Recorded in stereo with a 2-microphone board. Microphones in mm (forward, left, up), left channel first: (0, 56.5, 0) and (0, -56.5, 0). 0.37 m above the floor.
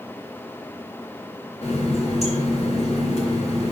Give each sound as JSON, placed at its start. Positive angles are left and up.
{"t": 1.6, "sound": "a running tap", "side_deg": 75, "distance_m": 2.5}